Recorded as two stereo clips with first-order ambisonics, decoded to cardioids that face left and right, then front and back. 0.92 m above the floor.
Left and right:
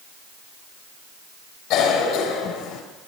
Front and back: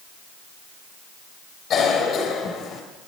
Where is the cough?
55° left, 3.5 m.